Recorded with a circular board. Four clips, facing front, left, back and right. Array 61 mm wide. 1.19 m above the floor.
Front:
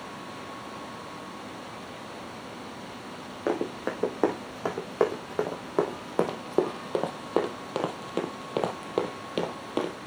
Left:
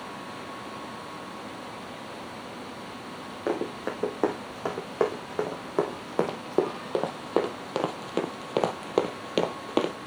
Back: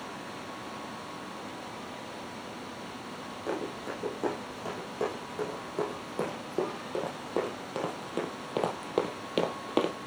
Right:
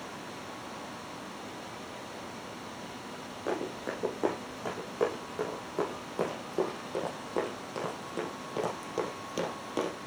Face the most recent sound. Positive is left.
turn(degrees=115)